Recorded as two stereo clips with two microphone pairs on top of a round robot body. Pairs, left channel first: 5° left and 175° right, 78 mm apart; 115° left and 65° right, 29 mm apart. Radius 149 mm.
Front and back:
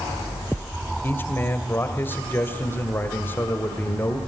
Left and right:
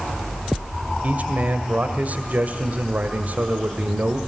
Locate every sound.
1.0 s a man speaking: 50° right, 2 m